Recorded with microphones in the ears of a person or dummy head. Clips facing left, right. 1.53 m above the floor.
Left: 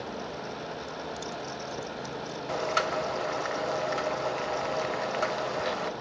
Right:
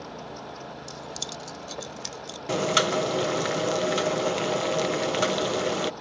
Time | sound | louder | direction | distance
0.9 | keys jangling | left 2 dB | 80° right | ?
2.5 | boiling | right 6 dB | 50° right (ahead or behind) | ?